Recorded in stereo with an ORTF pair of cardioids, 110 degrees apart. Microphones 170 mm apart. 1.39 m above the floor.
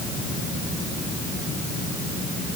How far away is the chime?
No chime in this recording.